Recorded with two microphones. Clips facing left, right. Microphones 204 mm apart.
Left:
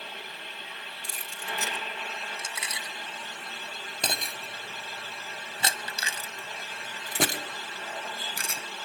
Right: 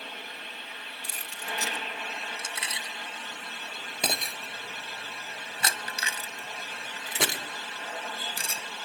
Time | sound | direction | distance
1.0 | keys jangling | 45° right (ahead or behind) | 2.5 m